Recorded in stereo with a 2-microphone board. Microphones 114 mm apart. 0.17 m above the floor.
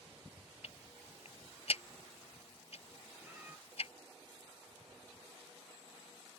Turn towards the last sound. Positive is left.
turn(degrees=-15)  # may be behind; listen again after turning